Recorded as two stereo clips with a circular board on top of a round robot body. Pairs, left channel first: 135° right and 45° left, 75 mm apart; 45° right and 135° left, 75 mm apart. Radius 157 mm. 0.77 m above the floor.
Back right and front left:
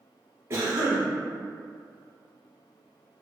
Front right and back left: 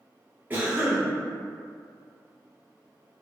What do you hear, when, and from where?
0.5 s a cough: 80° left, 1.3 m